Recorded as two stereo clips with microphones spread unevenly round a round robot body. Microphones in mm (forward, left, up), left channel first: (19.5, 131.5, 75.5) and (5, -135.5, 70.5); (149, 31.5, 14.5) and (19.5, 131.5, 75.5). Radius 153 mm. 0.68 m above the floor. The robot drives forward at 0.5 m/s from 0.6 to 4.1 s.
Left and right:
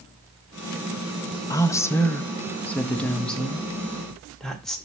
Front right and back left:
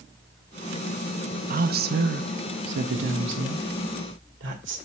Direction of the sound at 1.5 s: 155° left.